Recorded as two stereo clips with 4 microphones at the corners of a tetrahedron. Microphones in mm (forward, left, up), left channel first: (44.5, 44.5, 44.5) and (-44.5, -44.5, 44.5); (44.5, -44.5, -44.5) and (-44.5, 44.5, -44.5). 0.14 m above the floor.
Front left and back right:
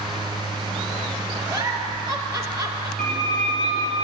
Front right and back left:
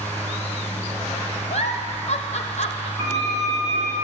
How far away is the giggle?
About 0.8 m.